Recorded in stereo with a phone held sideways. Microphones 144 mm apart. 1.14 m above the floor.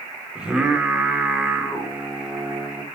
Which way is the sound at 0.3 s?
5° right (ahead or behind).